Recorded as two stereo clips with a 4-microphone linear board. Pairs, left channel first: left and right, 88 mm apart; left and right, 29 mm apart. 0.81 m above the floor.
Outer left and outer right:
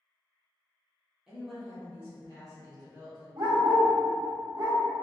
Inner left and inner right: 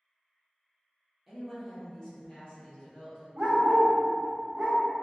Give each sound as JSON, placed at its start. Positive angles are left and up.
{"t": 1.3, "sound": "a woman speaking", "side_deg": -5, "distance_m": 1.0}
{"t": 3.4, "sound": "a dog barking", "side_deg": -60, "distance_m": 0.8}